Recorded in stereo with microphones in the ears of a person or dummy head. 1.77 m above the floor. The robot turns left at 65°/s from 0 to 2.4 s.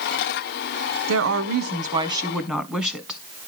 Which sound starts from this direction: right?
A woman speaking, at 1.1 s.